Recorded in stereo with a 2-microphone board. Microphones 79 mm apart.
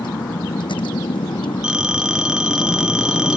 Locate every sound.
0.0 s a vehicle: 85° left; by 3.4 s 75° left (ahead or behind)
1.6 s a phone ringing: 10° right (ahead or behind)